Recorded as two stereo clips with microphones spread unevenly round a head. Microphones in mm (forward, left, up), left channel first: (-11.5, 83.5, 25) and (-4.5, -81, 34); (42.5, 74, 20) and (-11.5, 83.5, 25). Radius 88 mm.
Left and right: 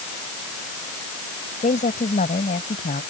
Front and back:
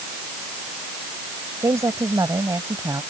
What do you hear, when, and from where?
1.6 s a woman speaking: 145° left; by 3.0 s 140° left